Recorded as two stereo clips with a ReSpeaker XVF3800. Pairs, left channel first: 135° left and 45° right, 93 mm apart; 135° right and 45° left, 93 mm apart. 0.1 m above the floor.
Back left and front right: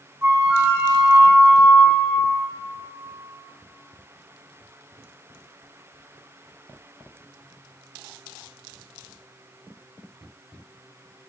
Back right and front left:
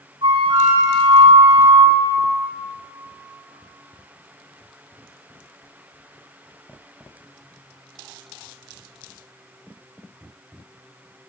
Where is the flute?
15° left, 2 m.